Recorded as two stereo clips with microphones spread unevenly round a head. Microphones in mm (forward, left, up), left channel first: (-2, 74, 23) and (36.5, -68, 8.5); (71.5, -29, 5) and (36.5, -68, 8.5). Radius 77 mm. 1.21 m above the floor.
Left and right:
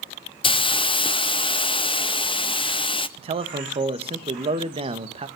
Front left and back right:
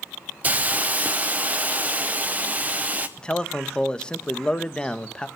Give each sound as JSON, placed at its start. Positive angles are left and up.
{"t": 0.4, "sound": "a hiss", "azimuth_deg": 160, "distance_m": 0.5}
{"t": 3.2, "sound": "a man speaking", "azimuth_deg": -25, "distance_m": 1.5}